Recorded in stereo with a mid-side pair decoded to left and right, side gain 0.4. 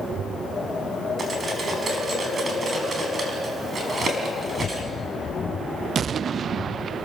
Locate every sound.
1.2 s cutlery clinking: 40° right, 4.5 m